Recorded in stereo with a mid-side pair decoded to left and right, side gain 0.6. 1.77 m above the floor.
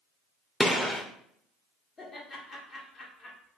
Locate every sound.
0.6 s a gunshot: 5° left, 0.9 m
2.0 s laughter: 35° left, 1.7 m